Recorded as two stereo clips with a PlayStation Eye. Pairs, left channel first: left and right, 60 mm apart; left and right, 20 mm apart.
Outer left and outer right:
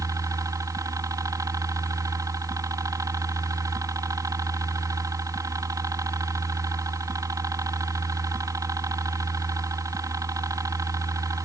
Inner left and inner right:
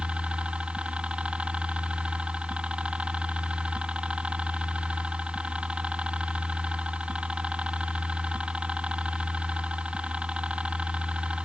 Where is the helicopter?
65° right (ahead or behind).